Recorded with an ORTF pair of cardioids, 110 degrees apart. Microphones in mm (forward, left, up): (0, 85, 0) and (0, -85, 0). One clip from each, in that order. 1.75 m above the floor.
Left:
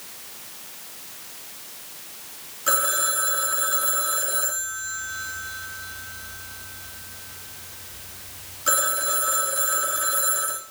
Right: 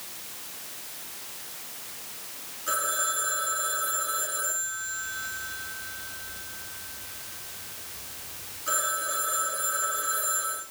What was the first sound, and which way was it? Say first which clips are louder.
A phone ringing: left 5 dB; 65° left.